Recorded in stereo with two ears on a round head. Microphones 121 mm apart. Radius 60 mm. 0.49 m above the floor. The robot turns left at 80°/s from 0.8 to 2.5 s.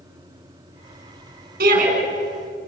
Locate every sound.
1.6 s a shout: 75° right (ahead or behind), 6.5 m; by 1.9 s 55° right (ahead or behind), 6.5 m